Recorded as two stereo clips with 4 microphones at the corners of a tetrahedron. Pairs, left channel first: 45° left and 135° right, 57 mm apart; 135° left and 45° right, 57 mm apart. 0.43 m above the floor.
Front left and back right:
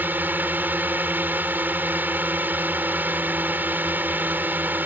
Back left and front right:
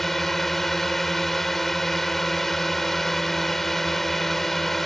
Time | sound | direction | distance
0.0 | a drone | 140° right | ?